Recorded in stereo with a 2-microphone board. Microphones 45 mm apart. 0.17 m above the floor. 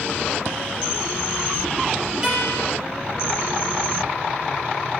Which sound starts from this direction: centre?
A guitar, at 2.2 s.